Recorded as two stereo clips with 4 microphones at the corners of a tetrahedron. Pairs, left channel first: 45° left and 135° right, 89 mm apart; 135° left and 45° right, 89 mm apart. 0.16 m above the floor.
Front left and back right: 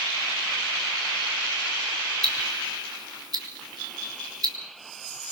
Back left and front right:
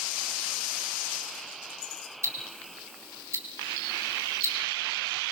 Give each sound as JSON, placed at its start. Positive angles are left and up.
{"t": 2.2, "sound": "ticking", "azimuth_deg": -100, "distance_m": 3.0}